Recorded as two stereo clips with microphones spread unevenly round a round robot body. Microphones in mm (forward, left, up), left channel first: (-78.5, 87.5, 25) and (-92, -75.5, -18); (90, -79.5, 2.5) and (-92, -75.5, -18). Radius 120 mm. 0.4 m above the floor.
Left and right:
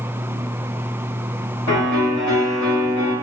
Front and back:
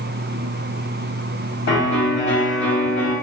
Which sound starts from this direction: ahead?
A piano, at 1.7 s.